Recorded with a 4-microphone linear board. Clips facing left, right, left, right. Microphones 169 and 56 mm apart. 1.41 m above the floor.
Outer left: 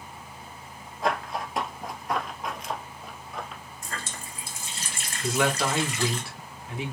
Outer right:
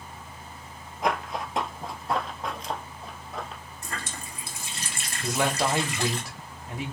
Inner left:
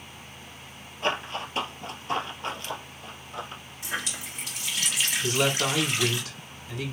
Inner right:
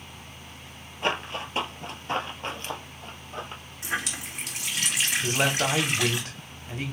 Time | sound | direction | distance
1.0 | running footsteps | 15° right (ahead or behind) | 1.5 m
3.8 | a running tap | 60° right (ahead or behind) | 2 m
5.2 | a man speaking | 40° right (ahead or behind) | 2 m